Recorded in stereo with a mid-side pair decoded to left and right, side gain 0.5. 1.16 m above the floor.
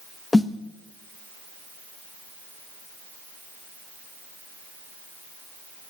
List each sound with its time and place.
0.3 s a snare drum: 20° left, 1.1 m